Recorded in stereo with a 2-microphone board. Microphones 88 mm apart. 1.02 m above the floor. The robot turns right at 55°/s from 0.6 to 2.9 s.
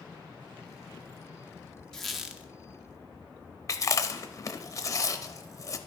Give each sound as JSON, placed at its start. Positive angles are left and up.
{"t": 1.9, "sound": "a squeak", "side_deg": 5, "distance_m": 0.6}
{"t": 3.7, "sound": "chewing", "side_deg": 40, "distance_m": 0.6}